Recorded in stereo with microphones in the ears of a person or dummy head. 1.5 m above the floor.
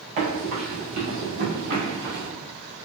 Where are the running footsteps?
30° right (ahead or behind), 1.7 m; by 2.3 s 25° right (ahead or behind), 1.9 m.